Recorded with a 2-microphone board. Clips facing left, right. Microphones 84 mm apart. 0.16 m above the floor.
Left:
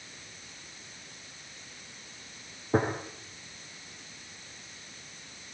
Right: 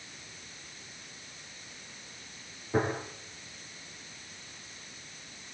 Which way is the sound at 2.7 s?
40° left (ahead or behind).